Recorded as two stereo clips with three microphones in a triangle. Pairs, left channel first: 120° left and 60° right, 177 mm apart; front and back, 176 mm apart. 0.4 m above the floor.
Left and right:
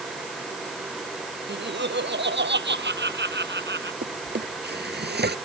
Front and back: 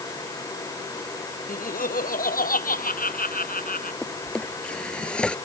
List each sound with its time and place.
1.5 s laughter: 40° right
4.0 s a drawer: 85° right